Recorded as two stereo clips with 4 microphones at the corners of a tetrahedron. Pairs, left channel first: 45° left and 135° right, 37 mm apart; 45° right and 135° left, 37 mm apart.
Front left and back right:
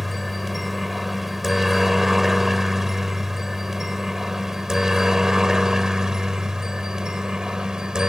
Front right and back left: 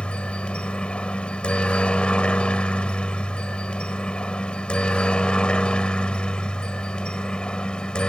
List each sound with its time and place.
0.0 s a helicopter: 50° right; by 8.1 s 80° right